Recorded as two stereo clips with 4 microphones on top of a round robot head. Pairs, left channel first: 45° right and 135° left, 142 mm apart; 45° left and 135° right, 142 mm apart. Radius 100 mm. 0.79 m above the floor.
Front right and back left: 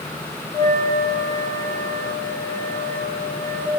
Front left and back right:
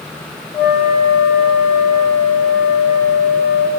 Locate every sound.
0.5 s a flute: straight ahead, 1.3 m